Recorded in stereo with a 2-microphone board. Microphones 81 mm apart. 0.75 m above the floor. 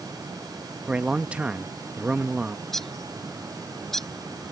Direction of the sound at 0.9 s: 15° right (ahead or behind).